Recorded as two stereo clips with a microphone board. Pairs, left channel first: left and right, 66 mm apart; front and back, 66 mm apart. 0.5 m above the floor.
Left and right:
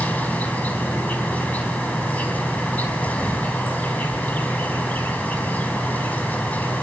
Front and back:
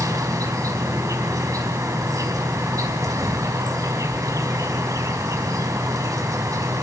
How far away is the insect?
About 4.5 m.